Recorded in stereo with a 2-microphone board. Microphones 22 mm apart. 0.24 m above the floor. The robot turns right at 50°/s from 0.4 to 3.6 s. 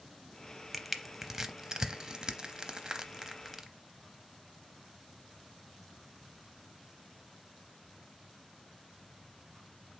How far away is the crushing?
About 0.6 m.